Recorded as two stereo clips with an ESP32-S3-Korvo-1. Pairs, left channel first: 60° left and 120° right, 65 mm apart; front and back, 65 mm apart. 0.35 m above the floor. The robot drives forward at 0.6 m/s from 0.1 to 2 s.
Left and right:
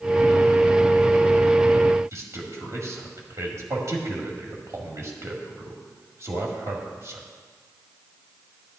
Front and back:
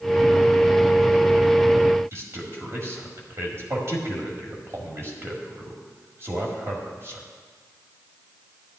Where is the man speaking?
145° right, 1.9 m.